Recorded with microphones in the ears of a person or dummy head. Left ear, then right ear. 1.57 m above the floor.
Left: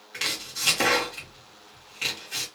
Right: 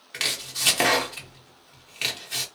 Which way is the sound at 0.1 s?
40° right (ahead or behind).